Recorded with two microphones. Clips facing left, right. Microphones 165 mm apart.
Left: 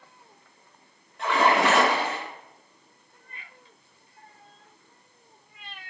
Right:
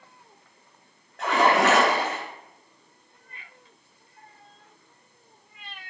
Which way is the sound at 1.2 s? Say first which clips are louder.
Right 1 dB; 85° right.